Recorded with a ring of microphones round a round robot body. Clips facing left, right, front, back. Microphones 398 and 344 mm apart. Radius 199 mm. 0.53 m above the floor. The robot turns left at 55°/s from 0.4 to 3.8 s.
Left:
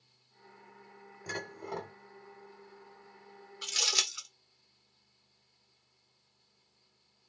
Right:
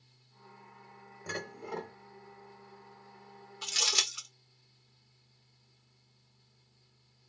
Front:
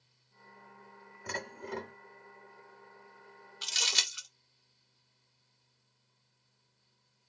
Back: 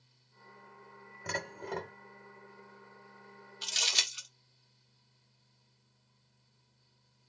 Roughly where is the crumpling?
Ahead.